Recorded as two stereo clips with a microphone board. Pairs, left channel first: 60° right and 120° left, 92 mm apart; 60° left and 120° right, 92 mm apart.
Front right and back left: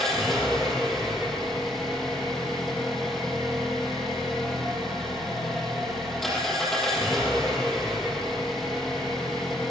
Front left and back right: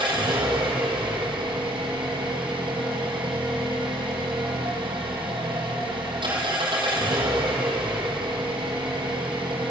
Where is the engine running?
150° right, 7 m.